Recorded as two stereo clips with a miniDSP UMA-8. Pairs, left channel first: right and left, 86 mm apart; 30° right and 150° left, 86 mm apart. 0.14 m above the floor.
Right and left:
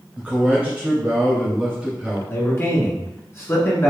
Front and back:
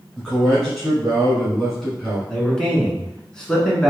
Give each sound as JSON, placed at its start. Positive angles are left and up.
{"t": 0.2, "sound": "a man speaking", "azimuth_deg": 45, "distance_m": 1.4}
{"t": 2.3, "sound": "a man speaking", "azimuth_deg": -105, "distance_m": 1.3}